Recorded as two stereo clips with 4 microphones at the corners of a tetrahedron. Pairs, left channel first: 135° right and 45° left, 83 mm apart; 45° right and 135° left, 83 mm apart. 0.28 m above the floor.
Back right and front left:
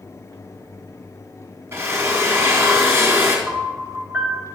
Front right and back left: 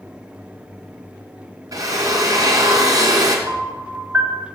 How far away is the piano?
About 1.5 m.